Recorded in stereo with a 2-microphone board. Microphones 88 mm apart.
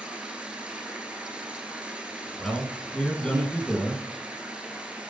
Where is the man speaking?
10° left (ahead or behind), 2.5 m.